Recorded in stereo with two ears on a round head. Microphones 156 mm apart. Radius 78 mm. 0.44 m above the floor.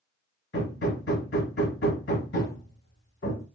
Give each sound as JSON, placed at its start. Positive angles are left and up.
{"t": 0.5, "sound": "hammering", "side_deg": 70, "distance_m": 1.3}